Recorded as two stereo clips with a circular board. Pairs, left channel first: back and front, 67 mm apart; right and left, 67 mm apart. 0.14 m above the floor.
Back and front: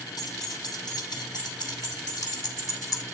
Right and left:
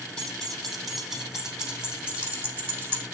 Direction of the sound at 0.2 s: 170° right.